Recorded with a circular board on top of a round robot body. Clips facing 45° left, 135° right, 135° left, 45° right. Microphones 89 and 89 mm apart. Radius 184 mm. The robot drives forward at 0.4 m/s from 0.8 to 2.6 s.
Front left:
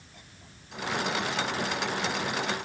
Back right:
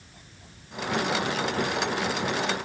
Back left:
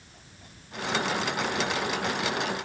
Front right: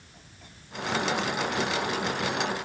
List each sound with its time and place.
Only background noise.